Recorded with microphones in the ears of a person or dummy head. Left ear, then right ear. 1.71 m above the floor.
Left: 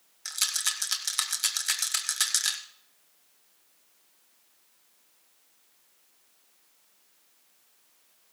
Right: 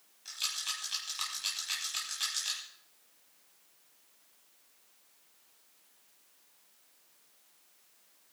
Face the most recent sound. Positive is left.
turn(degrees=60)  # may be behind; listen again after turning